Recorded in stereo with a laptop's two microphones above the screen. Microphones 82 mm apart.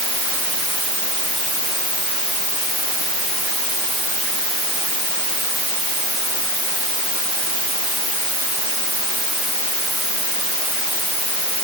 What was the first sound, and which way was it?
Only background noise.